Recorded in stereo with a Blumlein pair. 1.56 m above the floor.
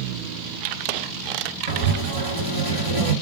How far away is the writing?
About 1.2 m.